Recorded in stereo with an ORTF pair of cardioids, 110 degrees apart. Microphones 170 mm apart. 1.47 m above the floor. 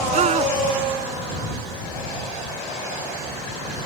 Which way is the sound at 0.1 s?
40° right.